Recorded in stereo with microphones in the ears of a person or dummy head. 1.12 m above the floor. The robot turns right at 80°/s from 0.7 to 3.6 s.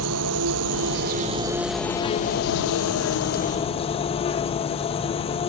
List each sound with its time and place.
0.0 s an insect: 85° right; by 5.5 s 150° left